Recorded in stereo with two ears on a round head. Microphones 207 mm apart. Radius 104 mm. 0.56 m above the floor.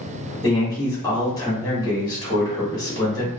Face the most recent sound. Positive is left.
turn(degrees=15)  # may be behind; listen again after turning